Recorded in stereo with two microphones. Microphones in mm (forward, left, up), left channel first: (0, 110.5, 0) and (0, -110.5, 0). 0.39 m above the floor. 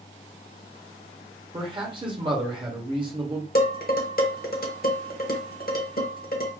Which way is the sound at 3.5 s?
45° left (ahead or behind).